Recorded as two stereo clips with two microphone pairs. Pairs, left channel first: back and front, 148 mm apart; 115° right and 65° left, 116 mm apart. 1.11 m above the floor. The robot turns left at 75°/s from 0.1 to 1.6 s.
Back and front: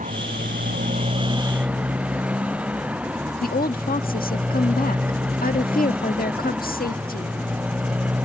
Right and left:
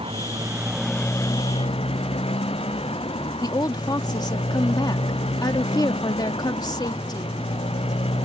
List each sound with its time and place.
0.0 s a motorcycle: 30° left; by 8.2 s 80° right
3.4 s a woman speaking: 170° right